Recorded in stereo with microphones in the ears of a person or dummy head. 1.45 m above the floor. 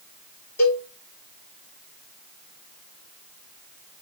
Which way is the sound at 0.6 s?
5° left (ahead or behind).